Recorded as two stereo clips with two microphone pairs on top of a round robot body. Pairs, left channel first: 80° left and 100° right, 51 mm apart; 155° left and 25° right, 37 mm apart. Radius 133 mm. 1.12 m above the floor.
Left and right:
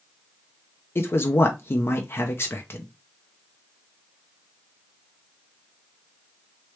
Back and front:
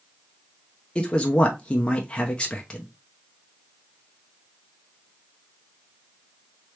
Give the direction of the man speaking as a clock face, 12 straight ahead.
9 o'clock.